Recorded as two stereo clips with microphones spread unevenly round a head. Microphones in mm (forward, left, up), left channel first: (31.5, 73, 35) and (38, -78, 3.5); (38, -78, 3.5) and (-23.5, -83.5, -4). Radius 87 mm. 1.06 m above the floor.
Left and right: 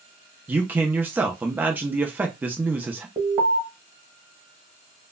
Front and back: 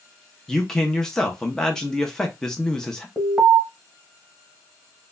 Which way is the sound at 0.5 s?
75° right.